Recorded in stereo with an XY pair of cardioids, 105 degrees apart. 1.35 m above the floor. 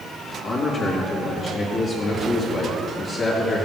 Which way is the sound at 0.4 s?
50° left.